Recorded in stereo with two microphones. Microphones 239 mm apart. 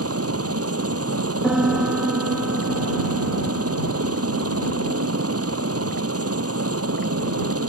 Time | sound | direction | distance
0.0 | a helicopter | 70° right (ahead or behind) | ?
1.4 | a piano | 5° right (ahead or behind) | ?